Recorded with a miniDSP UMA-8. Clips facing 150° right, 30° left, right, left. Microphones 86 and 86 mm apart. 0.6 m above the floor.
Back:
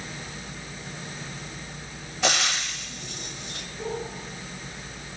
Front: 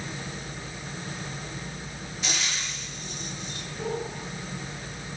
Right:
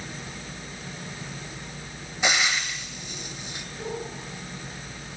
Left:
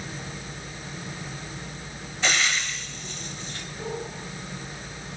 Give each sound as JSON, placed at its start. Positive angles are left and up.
{"t": 2.2, "sound": "frying", "azimuth_deg": -165, "distance_m": 1.4}